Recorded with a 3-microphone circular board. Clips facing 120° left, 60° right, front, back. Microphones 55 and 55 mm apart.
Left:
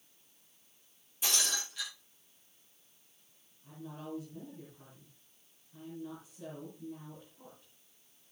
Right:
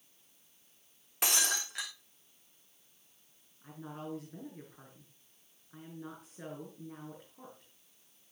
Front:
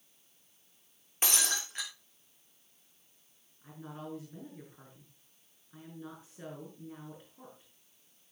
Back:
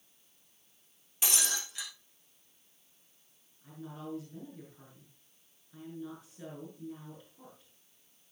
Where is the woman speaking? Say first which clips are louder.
Right 2 dB, even; 60° right, 6.5 m.